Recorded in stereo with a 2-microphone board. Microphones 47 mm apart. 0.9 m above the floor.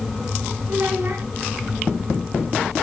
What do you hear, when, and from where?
0.7 s a child speaking: 55° right (ahead or behind), 3 m